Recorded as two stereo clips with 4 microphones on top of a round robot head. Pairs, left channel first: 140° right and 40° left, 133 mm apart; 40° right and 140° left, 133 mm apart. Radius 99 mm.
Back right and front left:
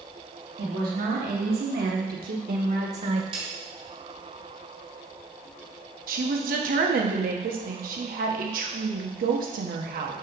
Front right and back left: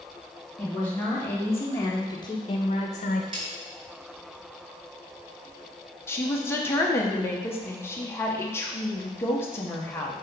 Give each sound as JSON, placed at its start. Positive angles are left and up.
{"t": 0.6, "sound": "a woman speaking", "azimuth_deg": 45, "distance_m": 2.5}
{"t": 3.3, "sound": "a snare drum", "azimuth_deg": 90, "distance_m": 1.6}
{"t": 6.1, "sound": "a woman speaking", "azimuth_deg": 35, "distance_m": 1.2}